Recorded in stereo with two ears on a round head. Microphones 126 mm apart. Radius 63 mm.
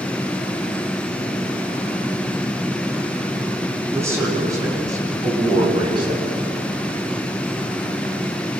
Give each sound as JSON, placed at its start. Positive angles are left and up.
{"t": 3.9, "sound": "a man speaking", "side_deg": -20, "distance_m": 9.0}